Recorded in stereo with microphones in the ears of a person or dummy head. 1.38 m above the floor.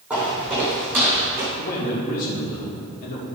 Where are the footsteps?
5° right (ahead or behind), 3 m; by 1.5 s 15° right (ahead or behind), 4.5 m.